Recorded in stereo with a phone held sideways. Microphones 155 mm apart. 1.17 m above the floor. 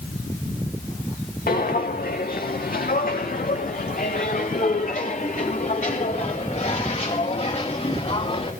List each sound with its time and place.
1.5 s footsteps: 65° left (ahead or behind), 3 m; by 8.5 s 40° left (ahead or behind), 6 m